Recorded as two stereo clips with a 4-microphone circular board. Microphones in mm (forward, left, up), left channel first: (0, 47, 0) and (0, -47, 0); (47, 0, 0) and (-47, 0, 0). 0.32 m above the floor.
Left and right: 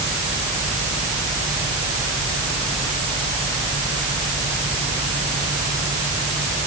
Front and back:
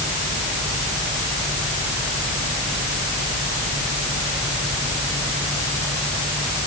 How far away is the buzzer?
No buzzer in this recording.